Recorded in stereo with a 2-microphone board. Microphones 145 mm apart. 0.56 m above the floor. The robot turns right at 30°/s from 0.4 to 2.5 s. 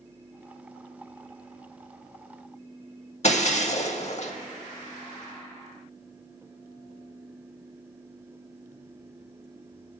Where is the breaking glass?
50° left (ahead or behind), 0.6 m.